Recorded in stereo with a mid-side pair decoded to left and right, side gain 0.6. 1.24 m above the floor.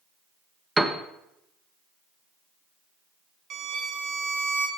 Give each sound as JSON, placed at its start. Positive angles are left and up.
{"t": 0.8, "sound": "a piano", "azimuth_deg": -10, "distance_m": 1.1}
{"t": 3.5, "sound": "a violin", "azimuth_deg": -55, "distance_m": 1.8}